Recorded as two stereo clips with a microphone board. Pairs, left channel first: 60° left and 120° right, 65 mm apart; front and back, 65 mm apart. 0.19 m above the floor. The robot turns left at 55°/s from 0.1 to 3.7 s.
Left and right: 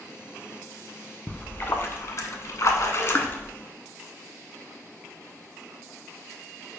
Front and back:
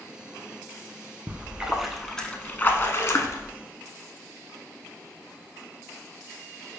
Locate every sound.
1.3 s a splash: 125° left, 0.6 m; by 3.5 s 5° left, 0.6 m